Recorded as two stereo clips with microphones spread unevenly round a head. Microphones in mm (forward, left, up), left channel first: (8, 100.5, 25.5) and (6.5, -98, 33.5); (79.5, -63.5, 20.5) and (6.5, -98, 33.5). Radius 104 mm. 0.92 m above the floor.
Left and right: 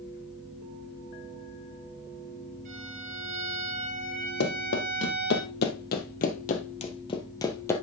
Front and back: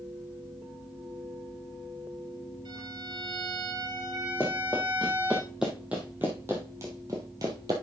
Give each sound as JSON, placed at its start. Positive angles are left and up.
{"t": 2.6, "sound": "a violin", "azimuth_deg": -140, "distance_m": 4.0}
{"t": 4.4, "sound": "running footsteps", "azimuth_deg": 110, "distance_m": 2.0}